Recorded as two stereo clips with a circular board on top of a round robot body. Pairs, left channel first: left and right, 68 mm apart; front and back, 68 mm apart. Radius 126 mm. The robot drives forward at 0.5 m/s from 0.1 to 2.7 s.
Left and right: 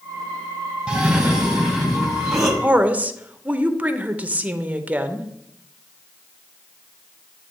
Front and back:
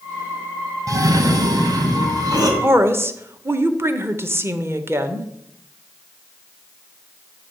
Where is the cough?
165° right, 0.9 m; by 2.5 s 175° right, 1.6 m.